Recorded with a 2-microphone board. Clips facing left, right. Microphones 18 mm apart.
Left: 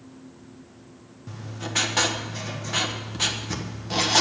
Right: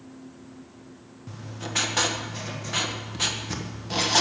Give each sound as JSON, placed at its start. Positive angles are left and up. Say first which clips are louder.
{"t": 1.3, "sound": "writing", "louder": "left 1 dB", "side_deg": 0, "distance_m": 1.4}